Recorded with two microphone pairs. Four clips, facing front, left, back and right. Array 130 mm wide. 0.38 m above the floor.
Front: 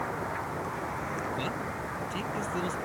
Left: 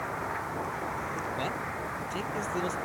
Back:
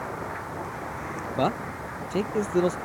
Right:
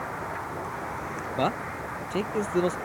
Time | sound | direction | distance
1.4 | a man speaking | 140° right | ?